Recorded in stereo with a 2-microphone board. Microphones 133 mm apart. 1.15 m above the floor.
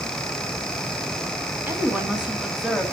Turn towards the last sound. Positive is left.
turn(degrees=0)  # may be behind; listen again after turning